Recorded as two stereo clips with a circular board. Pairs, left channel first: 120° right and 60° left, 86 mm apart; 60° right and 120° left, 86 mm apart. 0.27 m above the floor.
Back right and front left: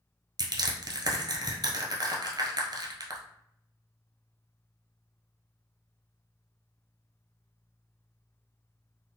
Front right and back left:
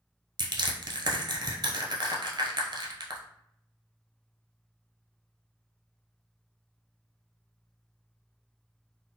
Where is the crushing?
95° left, 0.9 m.